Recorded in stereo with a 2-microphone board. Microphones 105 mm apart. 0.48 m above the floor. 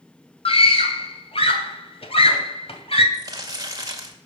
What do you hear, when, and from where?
0.5 s a scream: 70° left (ahead or behind), 2.5 m
3.1 s crumpling: 40° right (ahead or behind), 1.8 m